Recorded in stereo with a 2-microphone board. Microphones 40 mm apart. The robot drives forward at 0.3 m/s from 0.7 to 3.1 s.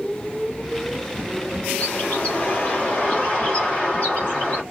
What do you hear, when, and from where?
1.8 s a bird: 40° left (ahead or behind), 1.7 m; by 4.6 s 35° left (ahead or behind), 2 m